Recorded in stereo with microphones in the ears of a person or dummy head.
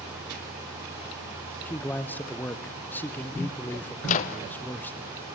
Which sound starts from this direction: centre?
A man speaking, at 1.6 s.